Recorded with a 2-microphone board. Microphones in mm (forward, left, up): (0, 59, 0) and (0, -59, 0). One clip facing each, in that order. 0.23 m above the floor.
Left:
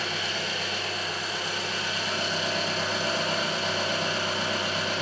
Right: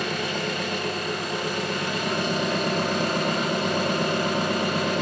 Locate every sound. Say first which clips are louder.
0.0 s an engine running: right 5 dB; 65° right (ahead or behind), 1.2 m